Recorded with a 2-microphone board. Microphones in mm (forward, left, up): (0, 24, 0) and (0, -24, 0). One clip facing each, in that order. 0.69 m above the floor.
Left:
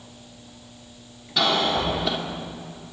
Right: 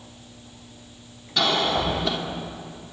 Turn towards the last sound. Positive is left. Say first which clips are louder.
# even
turn(degrees=0)  # may be behind; listen again after turning